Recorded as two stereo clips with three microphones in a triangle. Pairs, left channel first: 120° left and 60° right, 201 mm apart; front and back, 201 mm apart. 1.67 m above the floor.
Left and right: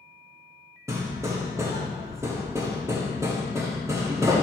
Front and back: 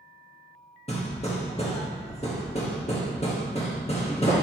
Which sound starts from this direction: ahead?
Hammering, at 0.9 s.